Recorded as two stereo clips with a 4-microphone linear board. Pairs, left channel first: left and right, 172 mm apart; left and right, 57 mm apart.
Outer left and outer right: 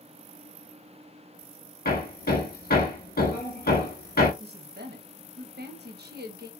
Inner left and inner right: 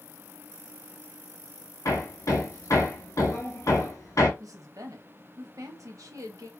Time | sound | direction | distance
1.9 | hammering | 65° left (ahead or behind) | 1.5 m
4.4 | a woman speaking | 75° right (ahead or behind) | 1.0 m